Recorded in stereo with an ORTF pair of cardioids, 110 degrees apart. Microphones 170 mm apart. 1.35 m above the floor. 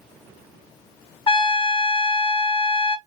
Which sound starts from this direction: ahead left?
A trumpet, at 1.3 s.